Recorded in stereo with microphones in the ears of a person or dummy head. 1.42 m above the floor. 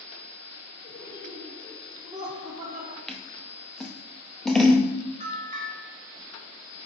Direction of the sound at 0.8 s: 40° left (ahead or behind).